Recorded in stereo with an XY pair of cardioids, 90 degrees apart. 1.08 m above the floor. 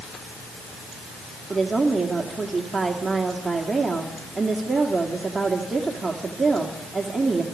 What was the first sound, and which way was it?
A woman speaking, 20° right.